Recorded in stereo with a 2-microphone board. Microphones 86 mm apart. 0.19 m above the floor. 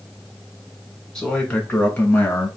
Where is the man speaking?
10° left (ahead or behind), 2.0 m; by 2.5 s 30° left (ahead or behind), 2 m.